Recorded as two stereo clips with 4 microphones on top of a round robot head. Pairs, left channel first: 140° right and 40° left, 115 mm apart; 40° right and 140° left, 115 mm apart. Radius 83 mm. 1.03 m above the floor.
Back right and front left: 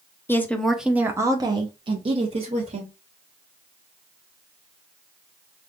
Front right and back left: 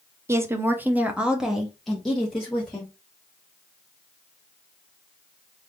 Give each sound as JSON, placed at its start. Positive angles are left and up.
{"t": 0.3, "sound": "a woman speaking", "azimuth_deg": 175, "distance_m": 0.8}